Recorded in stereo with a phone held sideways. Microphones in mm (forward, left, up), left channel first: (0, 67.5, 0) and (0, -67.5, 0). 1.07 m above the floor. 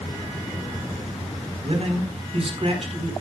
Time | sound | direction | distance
1.6 | a man speaking | 50° right (ahead or behind) | 4 m